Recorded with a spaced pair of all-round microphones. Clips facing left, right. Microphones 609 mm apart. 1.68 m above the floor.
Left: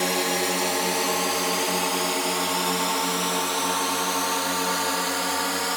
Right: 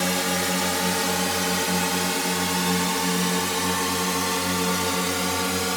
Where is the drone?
40° right (ahead or behind); by 5.8 s 55° right (ahead or behind).